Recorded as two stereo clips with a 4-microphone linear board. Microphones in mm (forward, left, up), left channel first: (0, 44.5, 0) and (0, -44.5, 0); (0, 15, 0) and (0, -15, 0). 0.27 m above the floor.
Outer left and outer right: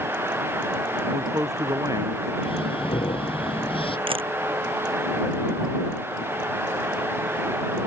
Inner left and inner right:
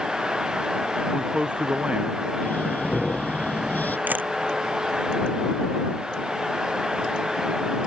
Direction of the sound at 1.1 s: 40° right (ahead or behind).